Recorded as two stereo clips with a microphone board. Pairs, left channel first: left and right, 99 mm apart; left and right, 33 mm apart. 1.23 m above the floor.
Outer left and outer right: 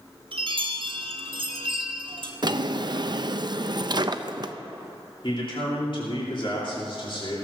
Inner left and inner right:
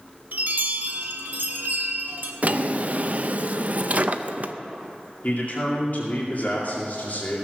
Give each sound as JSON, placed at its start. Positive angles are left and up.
{"t": 0.3, "sound": "a chime", "side_deg": -60, "distance_m": 1.2}
{"t": 2.4, "sound": "a drawer", "side_deg": -45, "distance_m": 0.5}
{"t": 5.2, "sound": "a man speaking", "side_deg": 55, "distance_m": 2.5}